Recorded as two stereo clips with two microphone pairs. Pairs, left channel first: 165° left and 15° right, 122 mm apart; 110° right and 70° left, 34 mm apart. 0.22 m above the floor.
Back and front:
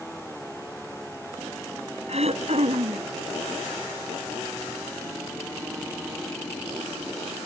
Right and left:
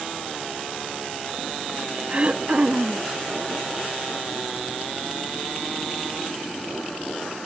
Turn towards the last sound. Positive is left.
turn(degrees=15)